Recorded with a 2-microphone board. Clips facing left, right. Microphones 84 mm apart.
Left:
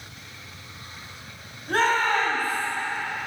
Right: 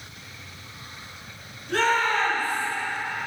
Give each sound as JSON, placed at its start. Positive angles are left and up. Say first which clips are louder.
{"t": 1.7, "sound": "a shout", "louder": "left 1 dB", "side_deg": 45, "distance_m": 4.0}